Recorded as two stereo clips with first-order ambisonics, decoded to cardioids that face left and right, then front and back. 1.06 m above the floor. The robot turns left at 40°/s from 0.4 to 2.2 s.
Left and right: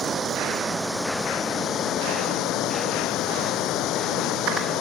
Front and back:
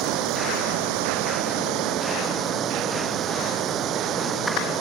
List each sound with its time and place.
0.0 s running water: 155° right; by 4.8 s 130° left